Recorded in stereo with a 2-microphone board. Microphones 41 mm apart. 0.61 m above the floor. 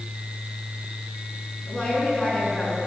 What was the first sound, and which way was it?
A woman speaking, 20° left (ahead or behind).